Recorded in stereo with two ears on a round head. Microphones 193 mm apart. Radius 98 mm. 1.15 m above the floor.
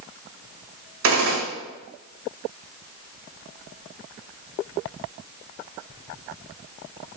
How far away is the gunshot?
About 1.7 m.